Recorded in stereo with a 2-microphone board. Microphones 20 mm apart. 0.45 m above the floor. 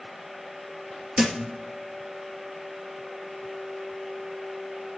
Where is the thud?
40° right (ahead or behind), 2.5 m.